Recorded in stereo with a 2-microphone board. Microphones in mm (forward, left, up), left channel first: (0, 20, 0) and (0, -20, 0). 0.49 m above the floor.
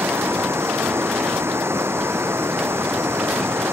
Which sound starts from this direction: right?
Running water, at 0.0 s.